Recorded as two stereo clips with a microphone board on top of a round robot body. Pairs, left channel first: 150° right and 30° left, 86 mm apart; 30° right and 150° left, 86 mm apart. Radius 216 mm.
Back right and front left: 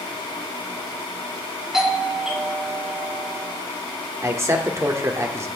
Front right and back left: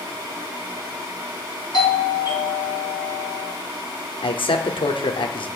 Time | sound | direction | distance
1.7 | a doorbell | 55° right | 4 m
4.2 | a man speaking | 25° right | 2 m